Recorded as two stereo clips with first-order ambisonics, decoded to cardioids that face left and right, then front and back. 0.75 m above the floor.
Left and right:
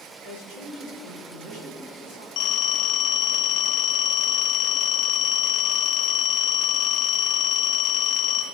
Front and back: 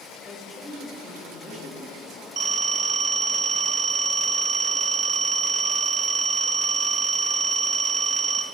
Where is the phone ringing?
120° left, 1.3 m.